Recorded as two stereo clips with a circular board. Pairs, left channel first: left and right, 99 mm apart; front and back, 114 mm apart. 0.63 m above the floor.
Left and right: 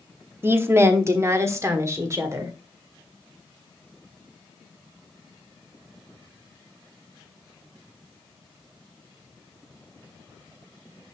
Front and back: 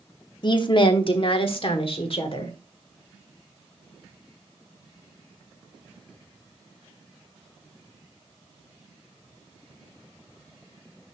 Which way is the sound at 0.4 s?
30° right.